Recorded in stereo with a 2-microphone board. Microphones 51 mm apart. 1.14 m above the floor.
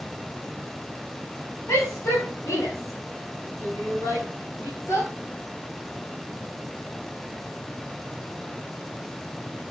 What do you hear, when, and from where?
1.7 s a shout: 80° left, 9.5 m; by 5.1 s 90° left, 13.5 m